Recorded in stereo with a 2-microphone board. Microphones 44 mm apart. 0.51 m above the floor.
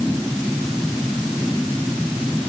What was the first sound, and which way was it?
Only background noise.